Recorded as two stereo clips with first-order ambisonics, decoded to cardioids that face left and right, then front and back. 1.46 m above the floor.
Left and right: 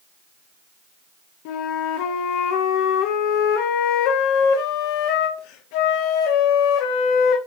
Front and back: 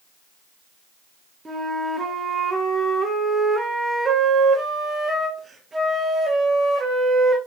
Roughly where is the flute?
Left.